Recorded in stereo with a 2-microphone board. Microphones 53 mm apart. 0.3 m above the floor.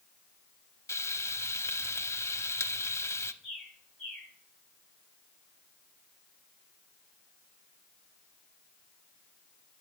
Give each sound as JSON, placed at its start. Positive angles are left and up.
{"t": 0.9, "sound": "frying", "side_deg": 60, "distance_m": 0.5}
{"t": 3.4, "sound": "a bird", "side_deg": 0, "distance_m": 5.5}